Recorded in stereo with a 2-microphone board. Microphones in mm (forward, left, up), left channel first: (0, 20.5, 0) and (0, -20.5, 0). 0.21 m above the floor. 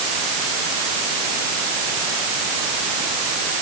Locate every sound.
Only background noise.